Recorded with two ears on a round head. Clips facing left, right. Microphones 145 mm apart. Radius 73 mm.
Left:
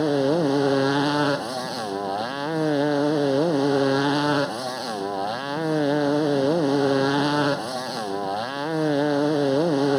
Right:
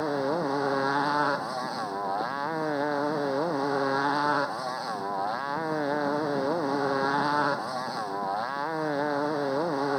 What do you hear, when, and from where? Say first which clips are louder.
0.0 s a motorcycle: left 7 dB; 35° left (ahead or behind)